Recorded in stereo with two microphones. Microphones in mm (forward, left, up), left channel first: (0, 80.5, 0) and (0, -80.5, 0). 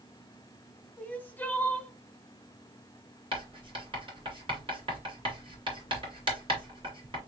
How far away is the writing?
About 2.5 m.